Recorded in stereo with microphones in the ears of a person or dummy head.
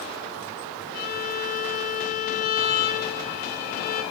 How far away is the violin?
About 0.9 m.